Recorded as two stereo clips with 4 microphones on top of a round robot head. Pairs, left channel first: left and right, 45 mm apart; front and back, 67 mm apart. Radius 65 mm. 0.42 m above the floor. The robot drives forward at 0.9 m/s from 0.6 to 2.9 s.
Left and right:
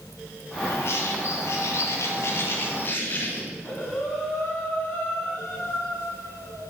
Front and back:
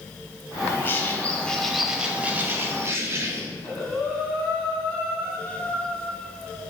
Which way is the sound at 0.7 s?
50° left.